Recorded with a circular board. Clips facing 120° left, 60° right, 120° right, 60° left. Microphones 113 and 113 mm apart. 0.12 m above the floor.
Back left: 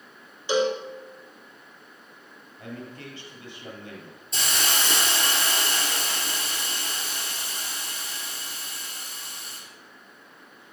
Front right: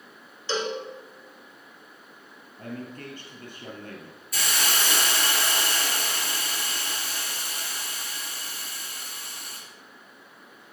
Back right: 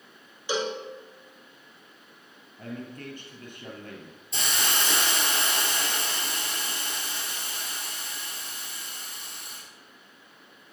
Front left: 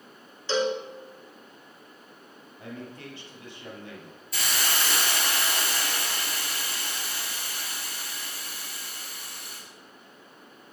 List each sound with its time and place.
0.5 s a cowbell: straight behind, 1.0 m
2.6 s a man speaking: 90° right, 2.5 m
4.3 s a hiss: straight behind, 2 m